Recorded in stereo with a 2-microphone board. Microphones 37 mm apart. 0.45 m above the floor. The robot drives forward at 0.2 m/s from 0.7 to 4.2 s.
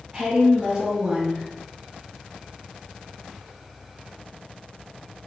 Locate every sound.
0.1 s a woman speaking: 20° right (ahead or behind), 0.9 m; by 1.5 s 25° right (ahead or behind), 0.8 m